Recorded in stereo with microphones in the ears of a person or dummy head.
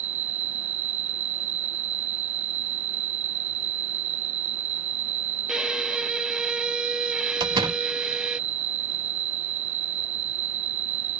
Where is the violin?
10° right (ahead or behind).